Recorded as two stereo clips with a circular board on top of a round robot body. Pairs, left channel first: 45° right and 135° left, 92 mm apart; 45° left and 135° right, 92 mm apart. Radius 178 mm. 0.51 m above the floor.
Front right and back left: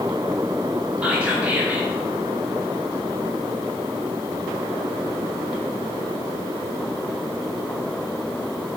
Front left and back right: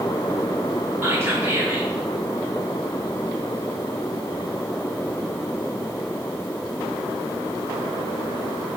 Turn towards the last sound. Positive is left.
turn(degrees=-165)